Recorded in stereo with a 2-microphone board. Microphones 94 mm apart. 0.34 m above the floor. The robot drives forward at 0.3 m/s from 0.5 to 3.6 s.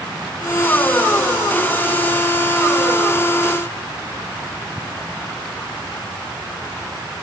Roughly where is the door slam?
No door slam in this recording.